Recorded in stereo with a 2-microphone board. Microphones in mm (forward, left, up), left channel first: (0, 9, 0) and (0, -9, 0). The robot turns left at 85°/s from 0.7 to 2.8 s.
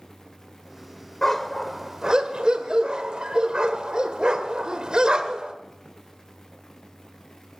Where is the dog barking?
20° left (ahead or behind), 1.2 m; by 5.5 s 50° right (ahead or behind), 1.2 m.